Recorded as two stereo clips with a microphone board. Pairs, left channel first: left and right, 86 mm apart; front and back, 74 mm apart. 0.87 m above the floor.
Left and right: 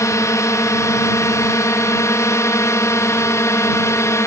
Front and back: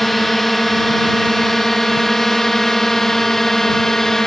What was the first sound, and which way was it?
A drone, 85° left.